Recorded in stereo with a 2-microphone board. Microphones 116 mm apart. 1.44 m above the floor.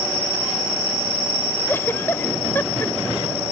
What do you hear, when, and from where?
1.7 s a giggle: 20° left (ahead or behind)